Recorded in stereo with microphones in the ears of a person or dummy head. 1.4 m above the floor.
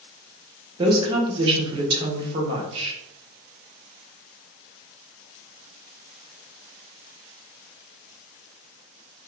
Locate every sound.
0.8 s a woman speaking: 30° right (ahead or behind), 1.1 m